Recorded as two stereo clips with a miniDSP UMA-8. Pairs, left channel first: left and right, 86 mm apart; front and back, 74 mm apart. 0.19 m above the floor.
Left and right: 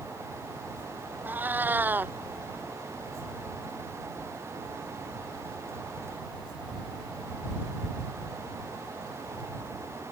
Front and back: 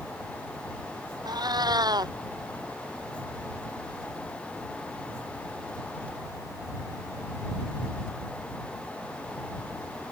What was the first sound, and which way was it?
A cat meowing, 160° right.